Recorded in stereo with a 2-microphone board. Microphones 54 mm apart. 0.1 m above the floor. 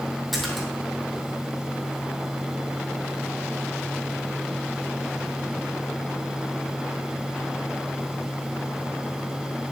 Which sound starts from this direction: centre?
A splash, at 0.3 s.